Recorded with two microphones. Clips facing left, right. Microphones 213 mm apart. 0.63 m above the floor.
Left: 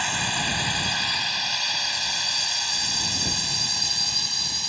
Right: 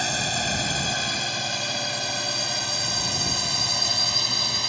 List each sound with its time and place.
0.0 s a drone: 45° right (ahead or behind); by 4.7 s 70° right (ahead or behind)